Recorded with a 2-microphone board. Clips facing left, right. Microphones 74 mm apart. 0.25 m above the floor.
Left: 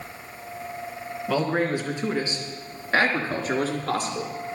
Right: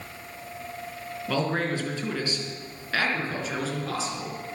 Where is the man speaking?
5° left (ahead or behind), 3 m; by 4.3 s 55° left (ahead or behind), 3.5 m.